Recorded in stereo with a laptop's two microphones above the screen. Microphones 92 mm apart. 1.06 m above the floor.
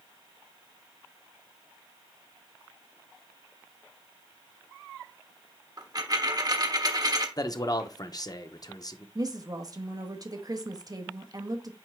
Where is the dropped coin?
45° right (ahead or behind), 1.1 m.